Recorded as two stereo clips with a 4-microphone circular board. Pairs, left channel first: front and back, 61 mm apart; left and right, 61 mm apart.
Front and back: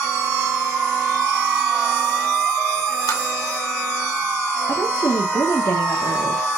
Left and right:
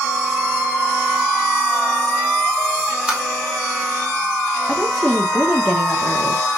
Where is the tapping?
15° right, 2 m.